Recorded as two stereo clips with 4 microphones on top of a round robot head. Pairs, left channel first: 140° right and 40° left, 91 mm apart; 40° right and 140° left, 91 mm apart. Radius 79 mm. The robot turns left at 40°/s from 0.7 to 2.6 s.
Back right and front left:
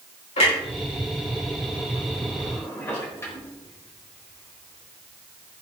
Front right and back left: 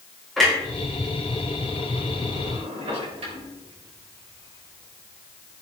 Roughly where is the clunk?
Behind right.